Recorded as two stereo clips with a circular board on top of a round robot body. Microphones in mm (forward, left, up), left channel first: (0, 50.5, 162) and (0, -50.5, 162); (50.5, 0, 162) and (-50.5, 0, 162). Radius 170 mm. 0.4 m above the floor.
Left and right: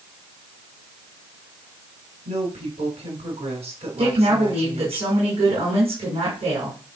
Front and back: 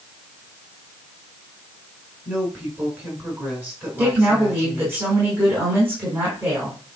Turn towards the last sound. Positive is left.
turn(degrees=-110)